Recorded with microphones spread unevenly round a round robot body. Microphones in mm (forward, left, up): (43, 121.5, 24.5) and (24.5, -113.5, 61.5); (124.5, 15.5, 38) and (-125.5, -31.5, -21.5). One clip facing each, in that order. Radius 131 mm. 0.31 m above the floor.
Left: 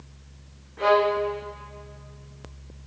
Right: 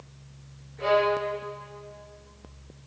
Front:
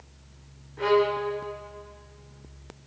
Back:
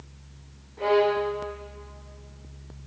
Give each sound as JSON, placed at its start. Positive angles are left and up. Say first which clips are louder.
{"t": 0.8, "sound": "a violin", "louder": "left 3 dB, back 1 dB", "azimuth_deg": 75, "distance_m": 7.5}